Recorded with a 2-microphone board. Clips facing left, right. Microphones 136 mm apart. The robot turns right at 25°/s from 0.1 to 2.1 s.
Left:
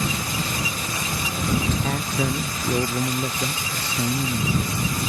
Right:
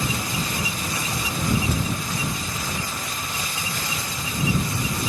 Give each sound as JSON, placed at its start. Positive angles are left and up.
{"t": 1.8, "sound": "a man speaking", "side_deg": 75}